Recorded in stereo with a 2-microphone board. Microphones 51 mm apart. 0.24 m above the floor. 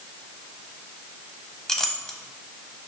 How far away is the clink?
About 1.0 m.